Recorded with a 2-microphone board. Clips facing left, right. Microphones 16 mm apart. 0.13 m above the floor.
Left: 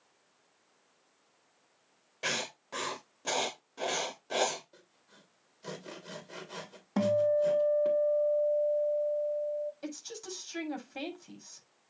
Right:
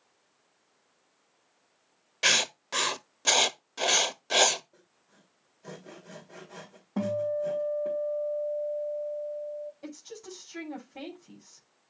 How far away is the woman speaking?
About 6.5 m.